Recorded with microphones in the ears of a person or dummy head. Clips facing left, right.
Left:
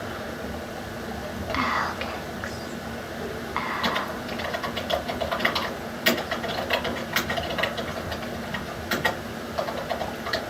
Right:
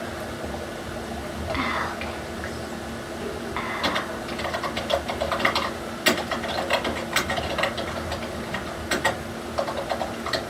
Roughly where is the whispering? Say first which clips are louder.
Even; left.